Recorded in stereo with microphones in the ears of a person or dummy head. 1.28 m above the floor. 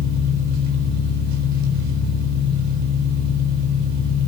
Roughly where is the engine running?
Right.